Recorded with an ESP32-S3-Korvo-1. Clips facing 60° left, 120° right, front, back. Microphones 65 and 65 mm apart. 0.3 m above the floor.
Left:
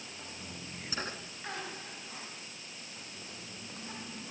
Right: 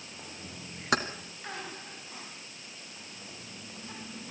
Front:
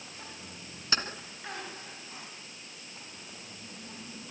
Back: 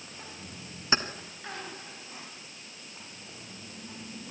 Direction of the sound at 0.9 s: 115° right.